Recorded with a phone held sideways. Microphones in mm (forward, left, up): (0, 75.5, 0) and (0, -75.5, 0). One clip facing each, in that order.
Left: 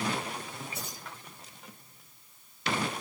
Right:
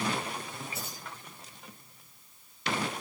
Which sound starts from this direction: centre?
Keys jangling, at 0.7 s.